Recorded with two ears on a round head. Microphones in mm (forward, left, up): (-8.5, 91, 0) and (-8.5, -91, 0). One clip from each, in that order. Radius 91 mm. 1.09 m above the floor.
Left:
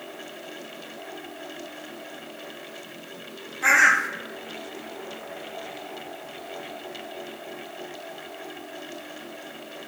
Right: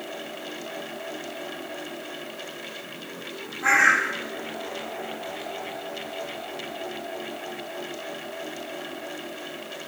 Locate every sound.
3.6 s a bird: 65° left (ahead or behind), 1.0 m